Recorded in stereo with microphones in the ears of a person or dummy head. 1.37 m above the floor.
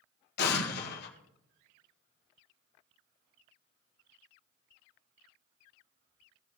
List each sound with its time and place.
0.4 s an explosion: 55° left (ahead or behind), 1.5 m